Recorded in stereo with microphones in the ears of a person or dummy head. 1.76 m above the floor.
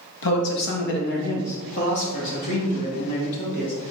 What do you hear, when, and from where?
0.2 s a man speaking: 65° left (ahead or behind), 1.8 m; by 3.9 s 40° left (ahead or behind), 4 m